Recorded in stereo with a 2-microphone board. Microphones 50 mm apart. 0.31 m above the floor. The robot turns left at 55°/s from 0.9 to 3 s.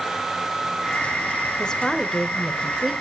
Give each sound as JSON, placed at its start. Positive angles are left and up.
{"t": 1.6, "sound": "a woman speaking", "side_deg": 15, "distance_m": 0.9}